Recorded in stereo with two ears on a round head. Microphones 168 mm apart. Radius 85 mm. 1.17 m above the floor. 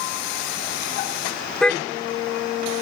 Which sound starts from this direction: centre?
A car horn, at 1.6 s.